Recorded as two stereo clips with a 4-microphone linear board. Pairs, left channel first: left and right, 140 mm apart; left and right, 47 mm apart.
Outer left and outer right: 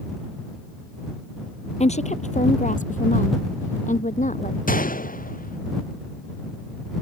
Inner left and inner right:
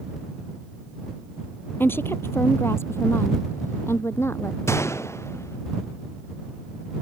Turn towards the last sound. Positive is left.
turn(degrees=85)